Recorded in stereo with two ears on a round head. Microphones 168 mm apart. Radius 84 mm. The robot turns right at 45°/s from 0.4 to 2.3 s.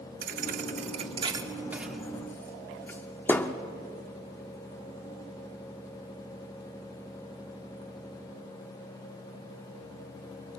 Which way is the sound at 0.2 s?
45° right (ahead or behind).